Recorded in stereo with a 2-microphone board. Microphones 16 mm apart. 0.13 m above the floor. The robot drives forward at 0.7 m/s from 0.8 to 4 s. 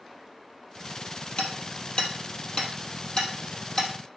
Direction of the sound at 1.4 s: 70° left (ahead or behind).